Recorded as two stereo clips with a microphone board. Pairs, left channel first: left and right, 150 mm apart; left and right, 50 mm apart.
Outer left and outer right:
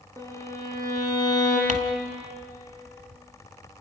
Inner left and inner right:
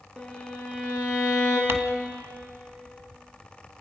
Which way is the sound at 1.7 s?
60° right (ahead or behind).